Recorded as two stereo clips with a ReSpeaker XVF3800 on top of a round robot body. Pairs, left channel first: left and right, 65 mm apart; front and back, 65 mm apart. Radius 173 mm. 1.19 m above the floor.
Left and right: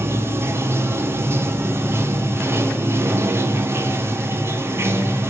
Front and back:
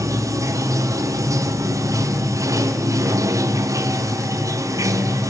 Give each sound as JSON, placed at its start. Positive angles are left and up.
{"t": 0.0, "sound": "running water", "azimuth_deg": -145, "distance_m": 1.1}